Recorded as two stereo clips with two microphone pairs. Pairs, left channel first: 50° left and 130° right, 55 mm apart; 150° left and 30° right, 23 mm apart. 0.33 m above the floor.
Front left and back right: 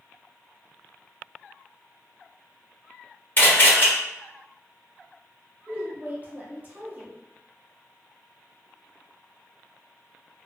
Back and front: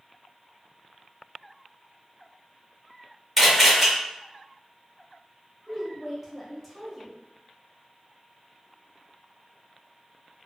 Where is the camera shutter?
65° left, 1.3 m.